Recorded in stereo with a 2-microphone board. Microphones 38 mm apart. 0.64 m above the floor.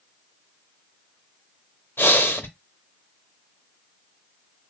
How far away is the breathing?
About 0.7 m.